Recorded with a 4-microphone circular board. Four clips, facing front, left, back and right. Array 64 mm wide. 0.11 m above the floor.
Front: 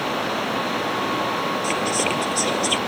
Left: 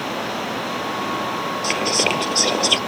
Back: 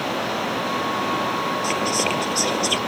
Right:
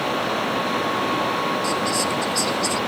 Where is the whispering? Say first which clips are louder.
Left 2 dB, even; 80° left.